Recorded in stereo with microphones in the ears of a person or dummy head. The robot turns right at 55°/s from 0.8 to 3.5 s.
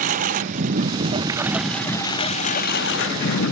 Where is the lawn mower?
45° right; by 3.5 s 105° left.